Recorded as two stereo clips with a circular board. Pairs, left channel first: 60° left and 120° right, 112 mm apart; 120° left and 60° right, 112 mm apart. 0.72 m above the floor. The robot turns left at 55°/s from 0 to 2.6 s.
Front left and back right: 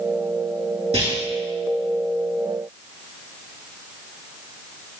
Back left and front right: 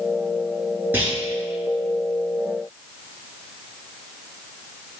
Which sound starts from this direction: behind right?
A clunk, at 0.9 s.